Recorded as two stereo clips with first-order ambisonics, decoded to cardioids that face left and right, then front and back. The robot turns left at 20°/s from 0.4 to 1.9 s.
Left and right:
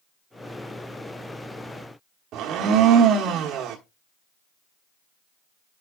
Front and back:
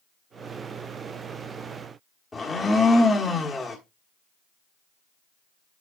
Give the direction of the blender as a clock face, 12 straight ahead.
2 o'clock.